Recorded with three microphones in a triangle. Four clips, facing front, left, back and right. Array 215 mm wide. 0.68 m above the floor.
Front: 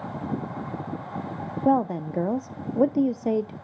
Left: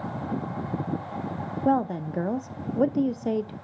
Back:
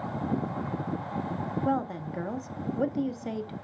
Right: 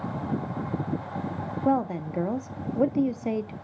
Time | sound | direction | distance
1.6 | a woman speaking | 5° left | 0.6 m